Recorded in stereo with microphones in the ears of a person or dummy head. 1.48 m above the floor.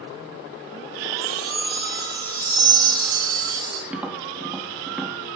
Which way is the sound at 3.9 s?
5° right (ahead or behind).